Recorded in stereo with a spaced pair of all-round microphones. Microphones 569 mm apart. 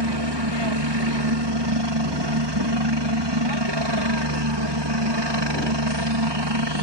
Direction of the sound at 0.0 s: 45° right (ahead or behind).